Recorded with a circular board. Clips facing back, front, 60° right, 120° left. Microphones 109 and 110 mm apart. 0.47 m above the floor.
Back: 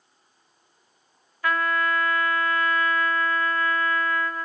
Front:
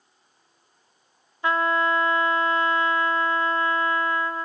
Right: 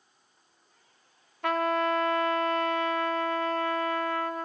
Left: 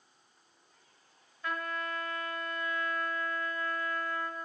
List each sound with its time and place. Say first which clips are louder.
1.4 s a trumpet: front 2 dB, right 11 dB; 65° right, 1.0 m